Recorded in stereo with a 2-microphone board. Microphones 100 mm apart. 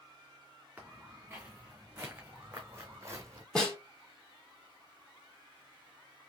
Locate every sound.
0.8 s footsteps: 15° right (ahead or behind), 2 m; by 3.5 s 35° right (ahead or behind), 0.8 m
3.5 s a snare drum: 10° left (ahead or behind), 2.5 m